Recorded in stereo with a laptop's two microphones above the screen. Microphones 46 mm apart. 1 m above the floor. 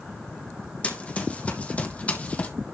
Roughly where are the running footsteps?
Left.